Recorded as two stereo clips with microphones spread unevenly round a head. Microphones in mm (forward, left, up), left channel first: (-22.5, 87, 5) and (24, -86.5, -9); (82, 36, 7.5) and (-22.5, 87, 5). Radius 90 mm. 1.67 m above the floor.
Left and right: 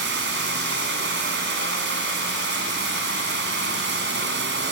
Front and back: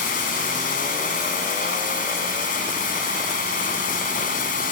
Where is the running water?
45° right.